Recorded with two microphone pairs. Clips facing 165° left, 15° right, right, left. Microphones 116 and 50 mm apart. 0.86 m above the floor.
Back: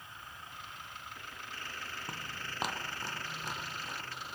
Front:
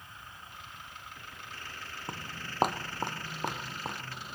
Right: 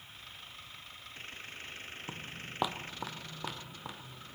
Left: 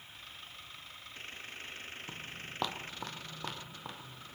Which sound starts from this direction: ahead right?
Footsteps, at 2.1 s.